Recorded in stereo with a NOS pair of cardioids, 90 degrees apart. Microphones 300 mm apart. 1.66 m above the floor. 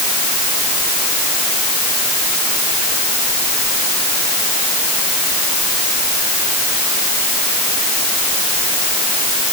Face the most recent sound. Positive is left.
No sound to turn to.